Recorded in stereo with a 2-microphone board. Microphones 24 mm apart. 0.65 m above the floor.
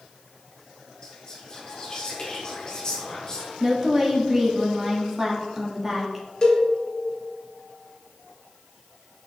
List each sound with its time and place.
1.0 s whispering: 35° left (ahead or behind), 1.8 m
3.6 s a woman speaking: 15° right (ahead or behind), 1.2 m
6.4 s a cowbell: 30° left (ahead or behind), 1.7 m